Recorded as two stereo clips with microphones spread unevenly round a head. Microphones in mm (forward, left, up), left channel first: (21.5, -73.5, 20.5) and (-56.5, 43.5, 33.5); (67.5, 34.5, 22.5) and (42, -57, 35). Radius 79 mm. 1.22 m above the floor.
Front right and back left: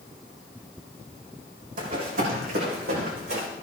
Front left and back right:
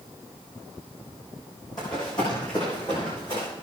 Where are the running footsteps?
145° left, 3.5 m; by 3.5 s 135° left, 5.5 m.